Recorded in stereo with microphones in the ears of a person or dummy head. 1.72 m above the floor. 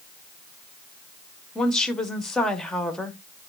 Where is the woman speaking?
Centre (ahead or behind), 1.3 m.